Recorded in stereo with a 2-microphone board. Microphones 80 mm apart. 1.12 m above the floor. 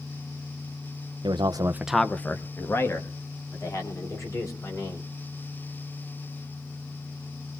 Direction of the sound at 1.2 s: 70° right (ahead or behind).